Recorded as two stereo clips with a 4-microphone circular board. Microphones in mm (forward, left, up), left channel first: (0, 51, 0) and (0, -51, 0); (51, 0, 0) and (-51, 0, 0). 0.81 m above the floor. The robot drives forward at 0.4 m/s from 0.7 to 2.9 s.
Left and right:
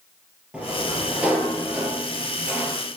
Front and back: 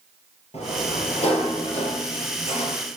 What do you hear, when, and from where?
0.5 s a sliding door: 10° right, 6 m; by 2.8 s 15° right, 5 m